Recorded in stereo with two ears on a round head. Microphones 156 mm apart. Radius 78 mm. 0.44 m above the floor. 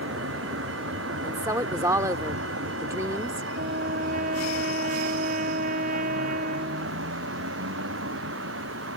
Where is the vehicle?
80° right.